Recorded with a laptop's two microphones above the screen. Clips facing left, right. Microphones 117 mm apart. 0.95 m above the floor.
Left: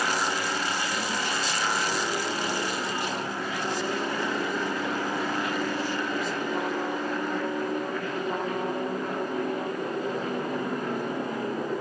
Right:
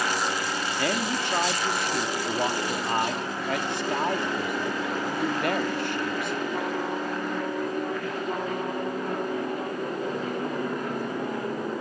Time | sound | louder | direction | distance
0.8 | a man speaking | right 3 dB | 70° right (ahead or behind) | 2.5 m